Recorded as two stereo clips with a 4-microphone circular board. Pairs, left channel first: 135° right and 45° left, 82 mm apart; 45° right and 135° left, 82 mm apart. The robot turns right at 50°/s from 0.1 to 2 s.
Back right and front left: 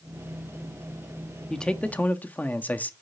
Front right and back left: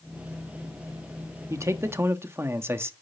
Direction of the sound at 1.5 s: 145° left.